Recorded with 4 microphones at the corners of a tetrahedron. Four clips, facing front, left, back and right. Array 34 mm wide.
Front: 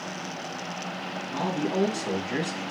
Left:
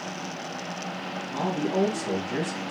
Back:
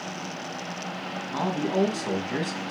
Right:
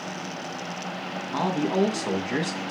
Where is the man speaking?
110° right, 2.5 m.